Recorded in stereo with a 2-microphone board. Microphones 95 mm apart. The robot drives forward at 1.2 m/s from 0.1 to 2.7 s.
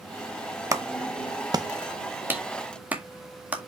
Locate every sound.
0.7 s a clap: 35° right (ahead or behind), 0.9 m; by 3.7 s 15° right (ahead or behind), 1.9 m